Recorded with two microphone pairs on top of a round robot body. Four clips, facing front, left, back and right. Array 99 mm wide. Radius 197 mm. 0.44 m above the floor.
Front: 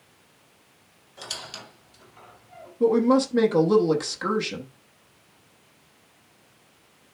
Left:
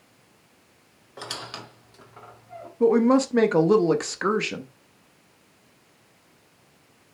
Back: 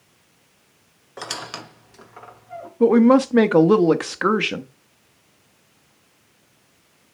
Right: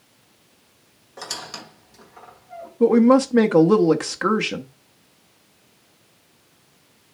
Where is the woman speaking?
165° right, 1.3 m.